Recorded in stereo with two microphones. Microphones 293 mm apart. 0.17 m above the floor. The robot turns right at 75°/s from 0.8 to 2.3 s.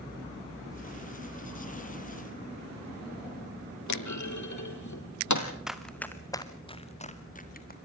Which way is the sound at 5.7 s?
Centre (ahead or behind).